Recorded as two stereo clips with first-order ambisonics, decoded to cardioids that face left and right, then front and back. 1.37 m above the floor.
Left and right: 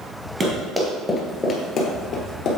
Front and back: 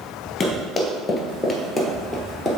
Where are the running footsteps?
40° right, 1.4 m; by 2.5 s 95° left, 1.8 m.